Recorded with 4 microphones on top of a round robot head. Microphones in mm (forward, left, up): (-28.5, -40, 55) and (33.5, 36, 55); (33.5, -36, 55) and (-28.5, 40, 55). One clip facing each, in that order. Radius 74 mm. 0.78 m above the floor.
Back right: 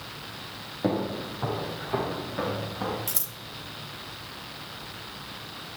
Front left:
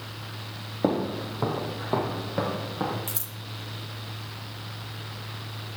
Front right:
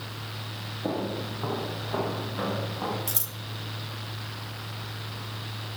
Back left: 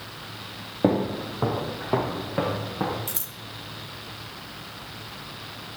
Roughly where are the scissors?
Right.